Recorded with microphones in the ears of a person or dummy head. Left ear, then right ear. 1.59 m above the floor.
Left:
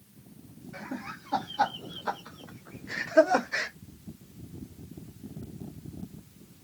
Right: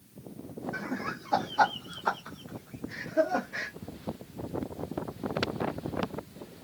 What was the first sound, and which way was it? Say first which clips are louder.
Laughter: right 3 dB; 60° right (ahead or behind).